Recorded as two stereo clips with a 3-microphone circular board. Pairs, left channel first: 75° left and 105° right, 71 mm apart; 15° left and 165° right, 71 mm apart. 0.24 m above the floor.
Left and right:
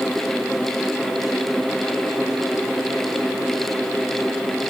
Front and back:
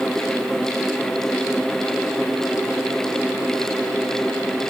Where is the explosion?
No explosion in this recording.